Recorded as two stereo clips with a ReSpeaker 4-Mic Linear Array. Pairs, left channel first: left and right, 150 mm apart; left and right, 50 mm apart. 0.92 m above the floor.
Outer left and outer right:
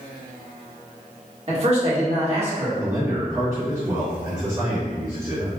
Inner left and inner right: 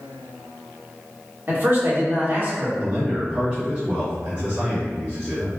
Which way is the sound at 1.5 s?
45° right (ahead or behind).